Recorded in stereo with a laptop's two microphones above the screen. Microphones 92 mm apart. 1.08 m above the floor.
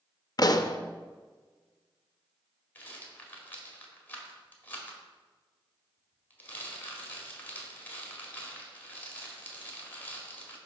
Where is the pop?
45° left (ahead or behind), 0.5 m.